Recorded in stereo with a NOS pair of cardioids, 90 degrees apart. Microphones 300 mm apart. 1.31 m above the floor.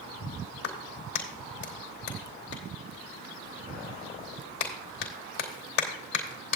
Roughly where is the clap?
Ahead left.